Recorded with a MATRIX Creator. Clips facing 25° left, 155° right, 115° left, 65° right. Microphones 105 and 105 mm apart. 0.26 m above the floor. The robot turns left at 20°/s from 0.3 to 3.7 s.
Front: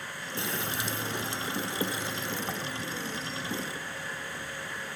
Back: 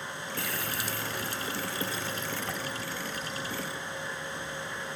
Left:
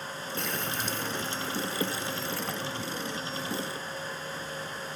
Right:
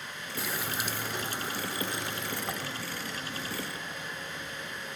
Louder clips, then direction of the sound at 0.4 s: Front 3 dB, even; 10° left.